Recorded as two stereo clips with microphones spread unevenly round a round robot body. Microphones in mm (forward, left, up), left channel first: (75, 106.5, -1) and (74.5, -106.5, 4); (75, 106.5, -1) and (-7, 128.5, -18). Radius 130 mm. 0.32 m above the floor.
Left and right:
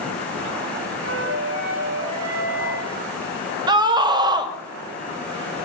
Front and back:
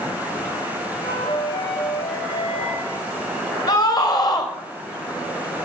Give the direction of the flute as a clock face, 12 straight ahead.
1 o'clock.